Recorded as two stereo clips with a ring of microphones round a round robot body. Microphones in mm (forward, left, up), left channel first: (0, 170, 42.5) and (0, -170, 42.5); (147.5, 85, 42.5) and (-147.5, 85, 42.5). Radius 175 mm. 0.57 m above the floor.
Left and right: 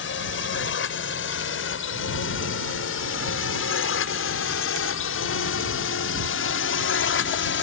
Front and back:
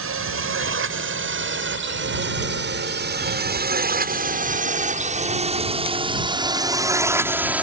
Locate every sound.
0.0 s a drone: 145° left; by 7.6 s 95° left